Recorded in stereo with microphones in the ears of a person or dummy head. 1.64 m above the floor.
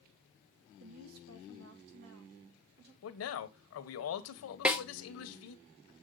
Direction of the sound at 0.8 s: 75° right (ahead or behind).